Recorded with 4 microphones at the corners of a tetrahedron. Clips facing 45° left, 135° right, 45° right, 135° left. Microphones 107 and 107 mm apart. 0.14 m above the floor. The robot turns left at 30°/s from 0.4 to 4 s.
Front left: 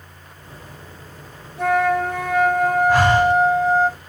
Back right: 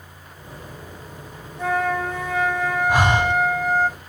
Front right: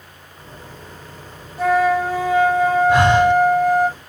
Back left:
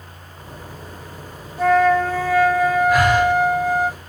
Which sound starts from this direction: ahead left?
A flute, at 1.6 s.